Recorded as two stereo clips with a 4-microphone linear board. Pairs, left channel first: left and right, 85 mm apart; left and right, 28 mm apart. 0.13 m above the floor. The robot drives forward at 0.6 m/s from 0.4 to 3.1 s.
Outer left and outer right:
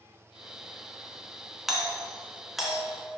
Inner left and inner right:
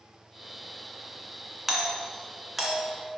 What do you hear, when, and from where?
1.7 s a doorbell: centre (ahead or behind), 2 m